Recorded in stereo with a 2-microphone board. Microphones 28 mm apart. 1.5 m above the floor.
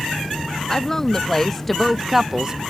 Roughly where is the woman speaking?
Left.